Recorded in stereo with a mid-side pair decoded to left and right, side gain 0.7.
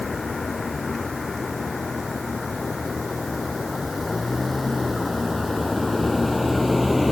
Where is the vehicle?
20° left; by 7.1 s 10° left.